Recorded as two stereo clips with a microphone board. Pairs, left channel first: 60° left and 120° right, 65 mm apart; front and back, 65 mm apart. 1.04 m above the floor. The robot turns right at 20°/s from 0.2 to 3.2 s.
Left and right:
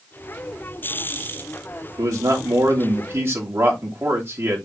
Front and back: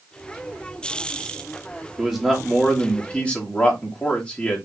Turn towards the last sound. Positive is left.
turn(degrees=-70)